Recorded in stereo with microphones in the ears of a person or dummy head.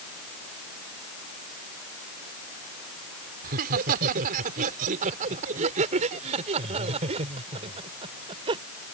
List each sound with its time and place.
3.4 s laughter: 55° right (ahead or behind); by 8.6 s 30° right (ahead or behind)